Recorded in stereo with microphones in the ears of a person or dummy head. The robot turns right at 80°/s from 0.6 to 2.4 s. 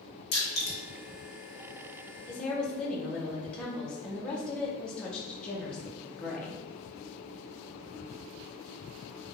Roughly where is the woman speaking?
Centre.